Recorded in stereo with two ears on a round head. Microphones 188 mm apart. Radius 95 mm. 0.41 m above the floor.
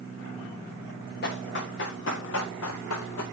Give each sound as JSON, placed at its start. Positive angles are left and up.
{"t": 1.2, "sound": "running footsteps", "side_deg": 50, "distance_m": 3.5}